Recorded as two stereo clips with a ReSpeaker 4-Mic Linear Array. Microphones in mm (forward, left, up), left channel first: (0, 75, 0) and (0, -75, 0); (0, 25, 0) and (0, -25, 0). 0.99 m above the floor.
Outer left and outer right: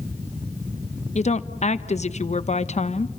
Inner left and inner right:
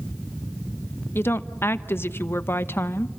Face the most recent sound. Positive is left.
turn(degrees=50)  # may be behind; listen again after turning